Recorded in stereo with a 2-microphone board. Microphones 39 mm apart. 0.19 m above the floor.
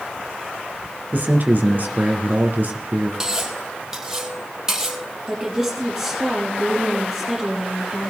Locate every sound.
1.1 s a man speaking: 50° right (ahead or behind), 2 m
3.2 s cutlery clinking: 15° right (ahead or behind), 3 m
5.3 s a woman speaking: 10° right (ahead or behind), 6.5 m